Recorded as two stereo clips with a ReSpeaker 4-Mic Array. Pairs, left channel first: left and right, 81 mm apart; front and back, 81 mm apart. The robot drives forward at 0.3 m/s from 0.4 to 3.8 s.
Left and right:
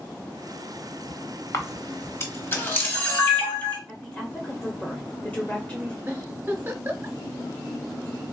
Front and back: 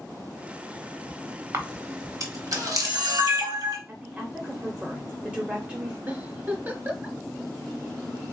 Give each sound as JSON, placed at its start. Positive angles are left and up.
{"t": 1.5, "sound": "a camera shutter", "azimuth_deg": 135, "distance_m": 0.8}
{"t": 3.9, "sound": "a woman speaking", "azimuth_deg": 135, "distance_m": 0.9}
{"t": 6.1, "sound": "a giggle", "azimuth_deg": -135, "distance_m": 0.7}